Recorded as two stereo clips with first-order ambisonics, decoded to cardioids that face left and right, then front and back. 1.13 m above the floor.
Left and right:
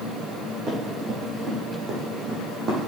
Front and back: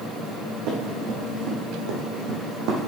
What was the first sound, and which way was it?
Running footsteps, 150° right.